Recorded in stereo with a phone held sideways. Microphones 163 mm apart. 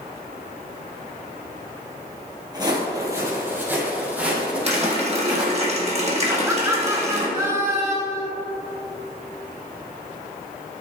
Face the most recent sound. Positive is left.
turn(degrees=-20)  # may be behind; listen again after turning